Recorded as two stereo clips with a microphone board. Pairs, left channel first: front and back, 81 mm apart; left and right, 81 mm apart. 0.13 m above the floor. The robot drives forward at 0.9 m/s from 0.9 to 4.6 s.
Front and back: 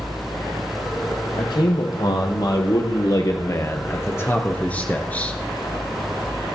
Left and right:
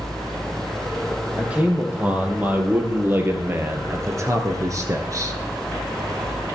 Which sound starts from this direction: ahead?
A man speaking, at 1.4 s.